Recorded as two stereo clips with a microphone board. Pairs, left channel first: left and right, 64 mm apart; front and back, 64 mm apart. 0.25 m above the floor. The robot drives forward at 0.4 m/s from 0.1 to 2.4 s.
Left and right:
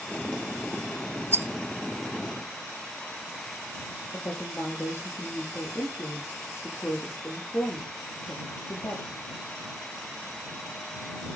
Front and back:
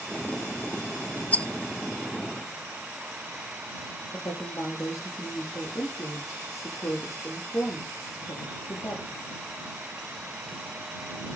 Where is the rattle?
55° right, 0.6 m; by 1.5 s 65° right, 0.6 m.